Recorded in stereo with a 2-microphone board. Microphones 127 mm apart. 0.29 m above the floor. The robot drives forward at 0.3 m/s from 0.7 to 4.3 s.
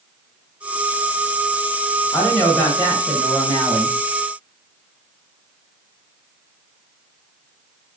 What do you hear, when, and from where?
2.1 s a woman speaking: 15° left (ahead or behind), 1.0 m; by 4.0 s 10° left (ahead or behind), 1.3 m